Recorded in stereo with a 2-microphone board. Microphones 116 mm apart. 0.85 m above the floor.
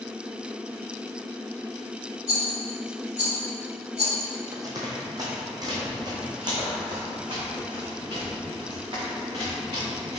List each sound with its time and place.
2.3 s a rattle: 75° right (ahead or behind), 2 m
4.5 s running footsteps: 30° right (ahead or behind), 1.7 m; by 10.2 s 40° right (ahead or behind), 4.5 m